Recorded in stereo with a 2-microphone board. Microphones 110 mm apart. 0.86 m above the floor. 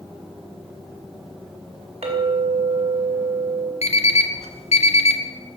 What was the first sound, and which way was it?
A clink, 70° right (ahead or behind).